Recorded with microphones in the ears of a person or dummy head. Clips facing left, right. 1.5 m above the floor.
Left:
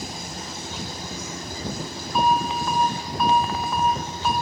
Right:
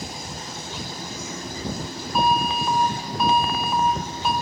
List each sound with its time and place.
2.1 s an alarm: 5° right (ahead or behind), 3.5 m